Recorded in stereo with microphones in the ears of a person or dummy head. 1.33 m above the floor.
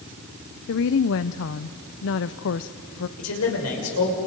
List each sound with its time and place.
0.7 s a woman speaking: 65° left (ahead or behind), 0.6 m
3.2 s a man speaking: 80° left, 6.5 m